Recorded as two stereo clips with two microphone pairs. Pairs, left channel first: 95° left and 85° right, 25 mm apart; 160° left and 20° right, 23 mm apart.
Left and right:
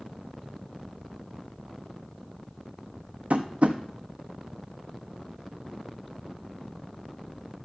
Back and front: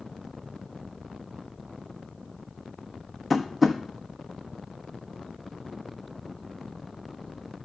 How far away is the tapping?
About 1.2 m.